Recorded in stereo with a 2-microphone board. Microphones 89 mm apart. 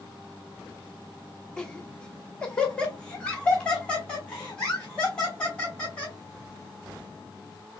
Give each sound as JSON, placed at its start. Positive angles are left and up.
{"t": 1.6, "sound": "laughter", "side_deg": 10, "distance_m": 1.0}